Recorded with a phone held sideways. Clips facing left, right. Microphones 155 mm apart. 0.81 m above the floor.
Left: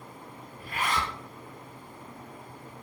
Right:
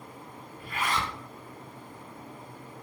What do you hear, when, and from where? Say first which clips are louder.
0.6 s a zipper: even; 40° left (ahead or behind), 1.0 m